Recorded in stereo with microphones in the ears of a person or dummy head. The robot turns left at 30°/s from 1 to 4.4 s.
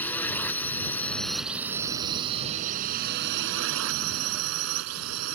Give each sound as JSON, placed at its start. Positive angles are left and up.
{"t": 0.0, "sound": "a drone", "azimuth_deg": 5}